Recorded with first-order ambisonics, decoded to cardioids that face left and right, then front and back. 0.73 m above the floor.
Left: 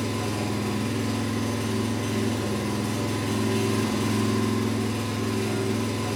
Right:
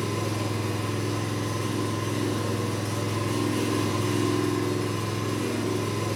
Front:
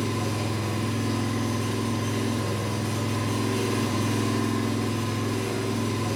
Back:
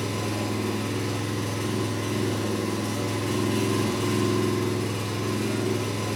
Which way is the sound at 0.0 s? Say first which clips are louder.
Even, even; 145° left.